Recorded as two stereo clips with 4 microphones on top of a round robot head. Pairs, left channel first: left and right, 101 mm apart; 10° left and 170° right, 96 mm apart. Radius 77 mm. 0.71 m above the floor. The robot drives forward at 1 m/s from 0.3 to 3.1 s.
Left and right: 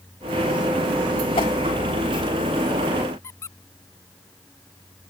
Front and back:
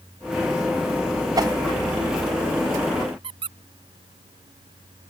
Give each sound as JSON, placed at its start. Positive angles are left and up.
{"t": 1.4, "sound": "a whoosh", "azimuth_deg": 140}
{"t": 3.2, "sound": "a squeak", "azimuth_deg": 160}